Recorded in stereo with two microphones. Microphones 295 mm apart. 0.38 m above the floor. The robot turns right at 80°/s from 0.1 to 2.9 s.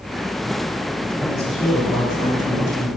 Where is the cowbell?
I don't hear a cowbell.